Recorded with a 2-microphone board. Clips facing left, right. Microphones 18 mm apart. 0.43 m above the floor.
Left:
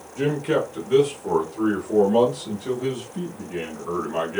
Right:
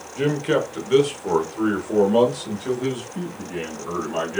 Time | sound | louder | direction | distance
0.2 | a man speaking | right 1 dB | 30° right (ahead or behind) | 1.3 m